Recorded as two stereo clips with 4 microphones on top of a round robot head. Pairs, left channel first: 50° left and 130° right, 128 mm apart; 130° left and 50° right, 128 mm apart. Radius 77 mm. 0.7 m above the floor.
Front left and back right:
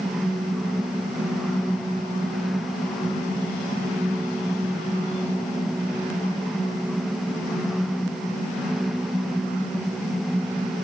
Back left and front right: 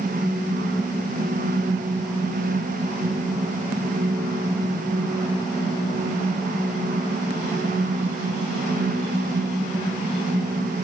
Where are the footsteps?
No footsteps in this recording.